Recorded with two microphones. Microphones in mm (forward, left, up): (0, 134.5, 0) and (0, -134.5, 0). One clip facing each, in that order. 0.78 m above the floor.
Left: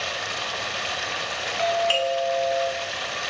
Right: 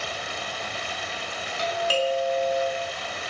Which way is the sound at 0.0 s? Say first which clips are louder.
Left 1 dB; 80° left.